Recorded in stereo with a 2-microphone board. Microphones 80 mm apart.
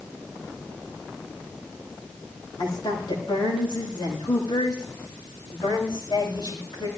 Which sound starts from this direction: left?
A woman speaking, at 2.6 s.